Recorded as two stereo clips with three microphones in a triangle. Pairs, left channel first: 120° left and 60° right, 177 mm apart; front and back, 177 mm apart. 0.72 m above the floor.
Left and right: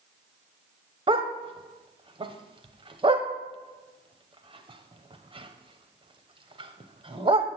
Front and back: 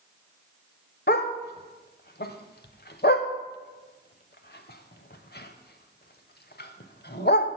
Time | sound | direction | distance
1.1 | a dog barking | straight ahead | 0.8 m